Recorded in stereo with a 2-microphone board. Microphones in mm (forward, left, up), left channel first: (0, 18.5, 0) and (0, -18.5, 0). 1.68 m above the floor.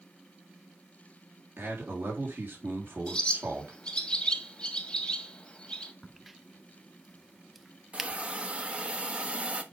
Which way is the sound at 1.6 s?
65° right (ahead or behind).